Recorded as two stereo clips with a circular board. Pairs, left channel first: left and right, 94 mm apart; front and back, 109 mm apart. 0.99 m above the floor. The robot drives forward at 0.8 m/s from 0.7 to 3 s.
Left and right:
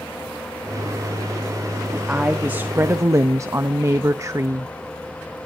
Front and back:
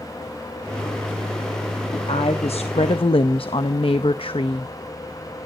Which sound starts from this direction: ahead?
A woman speaking, at 1.9 s.